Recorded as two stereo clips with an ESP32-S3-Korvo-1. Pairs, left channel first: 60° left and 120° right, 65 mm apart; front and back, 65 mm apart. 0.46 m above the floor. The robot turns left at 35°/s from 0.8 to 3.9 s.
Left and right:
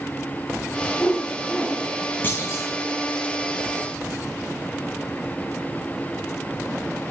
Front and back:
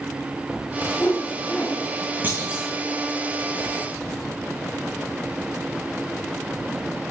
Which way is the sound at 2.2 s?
120° left.